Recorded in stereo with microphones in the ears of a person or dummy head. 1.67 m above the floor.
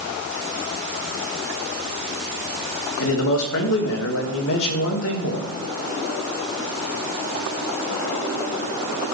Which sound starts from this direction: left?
A man speaking, at 3.0 s.